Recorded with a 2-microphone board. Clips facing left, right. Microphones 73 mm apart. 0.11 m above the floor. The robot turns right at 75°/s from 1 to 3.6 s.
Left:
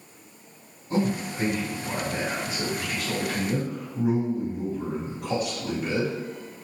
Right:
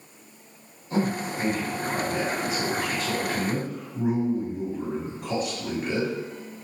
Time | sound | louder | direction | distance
0.9 | a man speaking | even | 40° left (ahead or behind) | 1.6 m